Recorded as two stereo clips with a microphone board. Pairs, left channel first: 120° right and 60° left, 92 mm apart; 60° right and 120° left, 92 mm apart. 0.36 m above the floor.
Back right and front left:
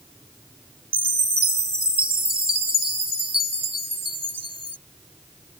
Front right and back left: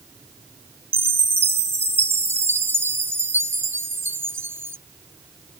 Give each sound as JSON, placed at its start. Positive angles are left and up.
{"t": 0.9, "sound": "a chime", "azimuth_deg": 55}